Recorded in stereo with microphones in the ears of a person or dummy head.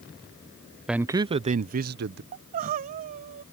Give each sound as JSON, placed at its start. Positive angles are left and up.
{"t": 0.9, "sound": "a man speaking", "side_deg": -5}
{"t": 2.3, "sound": "crying", "side_deg": -45}